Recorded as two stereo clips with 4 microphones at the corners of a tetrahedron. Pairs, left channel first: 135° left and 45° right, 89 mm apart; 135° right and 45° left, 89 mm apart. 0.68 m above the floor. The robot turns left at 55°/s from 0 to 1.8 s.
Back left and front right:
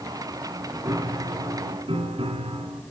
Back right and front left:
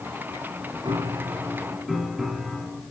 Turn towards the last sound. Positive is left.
turn(degrees=-45)